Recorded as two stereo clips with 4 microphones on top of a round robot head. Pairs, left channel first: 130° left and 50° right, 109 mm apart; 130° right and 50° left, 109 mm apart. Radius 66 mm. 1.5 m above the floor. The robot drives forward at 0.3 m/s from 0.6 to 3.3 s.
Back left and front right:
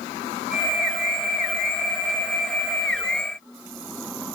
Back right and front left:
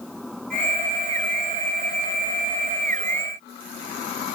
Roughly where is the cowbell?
No cowbell in this recording.